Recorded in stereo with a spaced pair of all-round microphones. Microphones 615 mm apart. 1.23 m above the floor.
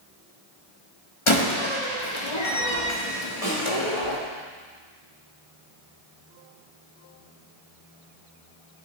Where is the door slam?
50° left (ahead or behind), 1.3 m.